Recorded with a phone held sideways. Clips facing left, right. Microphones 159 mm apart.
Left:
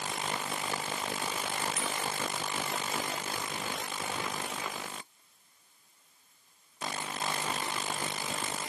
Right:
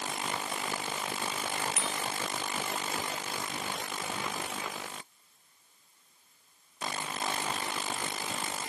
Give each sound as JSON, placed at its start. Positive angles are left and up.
{"t": 1.8, "sound": "a bicycle bell", "side_deg": -75, "distance_m": 2.5}